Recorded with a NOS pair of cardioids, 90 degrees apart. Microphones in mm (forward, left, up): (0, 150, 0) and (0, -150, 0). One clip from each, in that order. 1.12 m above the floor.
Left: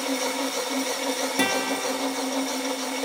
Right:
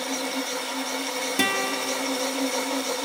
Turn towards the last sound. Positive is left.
turn(degrees=-10)